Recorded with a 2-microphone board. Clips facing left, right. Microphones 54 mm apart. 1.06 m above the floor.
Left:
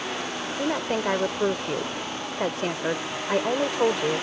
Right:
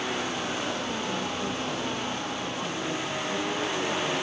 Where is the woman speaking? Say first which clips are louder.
Left 5 dB; 80° left.